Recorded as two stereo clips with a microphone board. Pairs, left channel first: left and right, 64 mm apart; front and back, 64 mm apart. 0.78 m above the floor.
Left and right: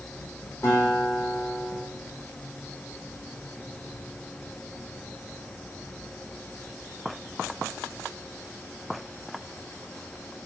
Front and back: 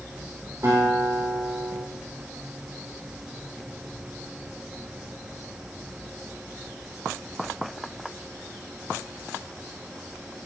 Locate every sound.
0.6 s a guitar: 140° left, 4 m